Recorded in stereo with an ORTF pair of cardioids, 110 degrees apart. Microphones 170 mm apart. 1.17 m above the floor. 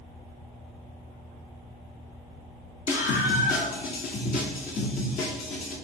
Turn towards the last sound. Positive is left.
turn(degrees=65)